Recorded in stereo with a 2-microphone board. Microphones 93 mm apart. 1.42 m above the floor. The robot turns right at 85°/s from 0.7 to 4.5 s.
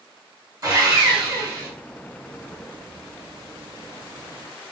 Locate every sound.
0.6 s sawing: 125° right, 1.9 m; by 1.7 s 40° right, 1.9 m